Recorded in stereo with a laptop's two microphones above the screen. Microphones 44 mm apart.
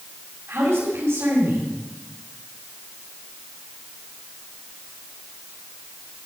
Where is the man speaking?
80° right, 5.5 m.